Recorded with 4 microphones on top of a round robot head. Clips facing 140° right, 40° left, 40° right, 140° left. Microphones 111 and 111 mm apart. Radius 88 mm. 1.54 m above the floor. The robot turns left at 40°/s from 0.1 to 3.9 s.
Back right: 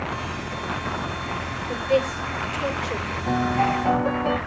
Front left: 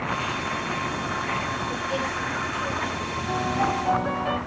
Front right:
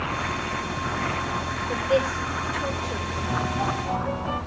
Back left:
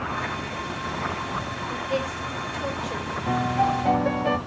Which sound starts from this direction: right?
A woman speaking, at 1.7 s.